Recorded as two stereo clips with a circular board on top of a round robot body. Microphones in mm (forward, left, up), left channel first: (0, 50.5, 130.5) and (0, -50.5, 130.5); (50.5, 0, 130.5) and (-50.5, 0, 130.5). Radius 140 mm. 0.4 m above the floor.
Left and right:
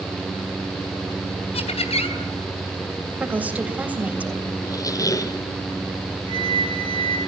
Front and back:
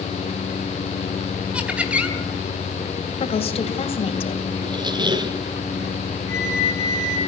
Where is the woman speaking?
15° right, 3 m.